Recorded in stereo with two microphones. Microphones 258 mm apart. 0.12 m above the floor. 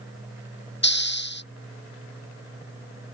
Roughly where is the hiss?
Left.